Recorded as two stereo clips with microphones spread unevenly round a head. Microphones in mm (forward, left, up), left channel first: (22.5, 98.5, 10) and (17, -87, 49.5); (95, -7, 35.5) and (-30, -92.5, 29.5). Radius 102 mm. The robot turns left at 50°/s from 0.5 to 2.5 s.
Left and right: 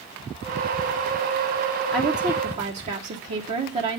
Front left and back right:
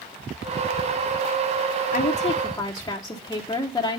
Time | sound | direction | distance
1.9 | a woman speaking | 5° right | 0.9 m